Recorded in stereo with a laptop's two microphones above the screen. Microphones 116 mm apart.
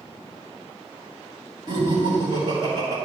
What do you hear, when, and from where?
1.7 s laughter: 40° right (ahead or behind), 2.5 m